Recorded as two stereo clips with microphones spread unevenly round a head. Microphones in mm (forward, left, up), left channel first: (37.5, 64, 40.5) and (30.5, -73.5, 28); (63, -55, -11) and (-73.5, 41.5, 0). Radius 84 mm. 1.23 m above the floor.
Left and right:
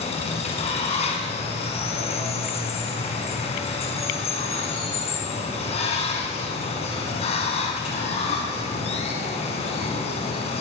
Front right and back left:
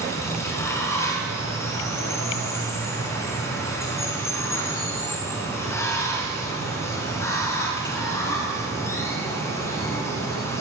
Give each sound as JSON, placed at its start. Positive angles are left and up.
{"t": 0.0, "sound": "running water", "azimuth_deg": 40, "distance_m": 5.0}